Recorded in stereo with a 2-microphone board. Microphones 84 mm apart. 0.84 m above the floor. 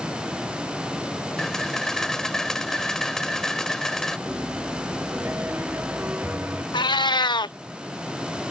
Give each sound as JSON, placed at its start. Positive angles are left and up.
{"t": 1.4, "sound": "a camera shutter", "side_deg": 5}
{"t": 4.3, "sound": "a piano", "side_deg": -25}
{"t": 6.7, "sound": "a cat meowing", "side_deg": 60}